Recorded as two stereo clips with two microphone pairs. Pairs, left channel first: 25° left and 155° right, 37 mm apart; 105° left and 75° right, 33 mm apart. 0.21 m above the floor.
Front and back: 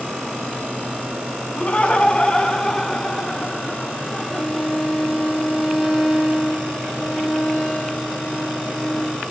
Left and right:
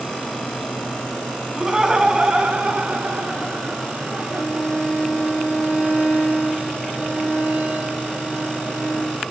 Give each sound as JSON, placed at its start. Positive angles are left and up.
{"t": 1.6, "sound": "laughter", "azimuth_deg": -5, "distance_m": 2.0}
{"t": 4.3, "sound": "a violin", "azimuth_deg": -55, "distance_m": 4.5}